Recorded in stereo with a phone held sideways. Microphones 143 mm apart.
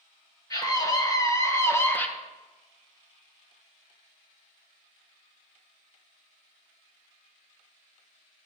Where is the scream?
25° left (ahead or behind), 1.5 m; by 2.1 s 10° left (ahead or behind), 0.8 m.